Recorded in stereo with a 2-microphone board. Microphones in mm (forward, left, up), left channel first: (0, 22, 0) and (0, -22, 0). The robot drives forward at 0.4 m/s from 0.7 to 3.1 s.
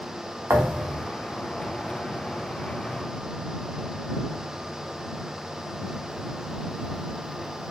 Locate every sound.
0.5 s a thud: 60° right (ahead or behind), 0.5 m; by 1.1 s 70° right (ahead or behind), 0.5 m